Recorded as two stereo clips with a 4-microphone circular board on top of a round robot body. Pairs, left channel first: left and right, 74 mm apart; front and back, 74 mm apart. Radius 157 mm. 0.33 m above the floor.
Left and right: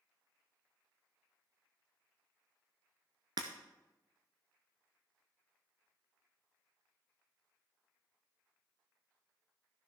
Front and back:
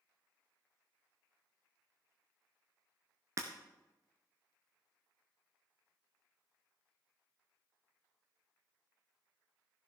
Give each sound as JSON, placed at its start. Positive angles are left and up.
{"t": 3.4, "sound": "breaking glass", "azimuth_deg": -125, "distance_m": 0.7}